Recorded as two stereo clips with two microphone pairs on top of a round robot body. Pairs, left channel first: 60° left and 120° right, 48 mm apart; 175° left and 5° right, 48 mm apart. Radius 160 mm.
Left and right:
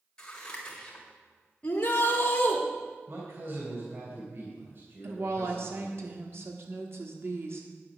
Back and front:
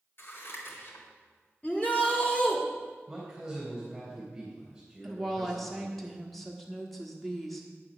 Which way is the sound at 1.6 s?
115° left.